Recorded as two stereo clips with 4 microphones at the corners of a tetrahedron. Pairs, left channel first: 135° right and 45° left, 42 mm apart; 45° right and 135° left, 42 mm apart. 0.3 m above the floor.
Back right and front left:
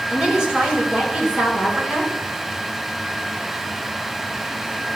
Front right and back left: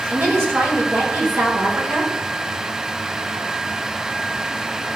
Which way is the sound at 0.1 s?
115° left.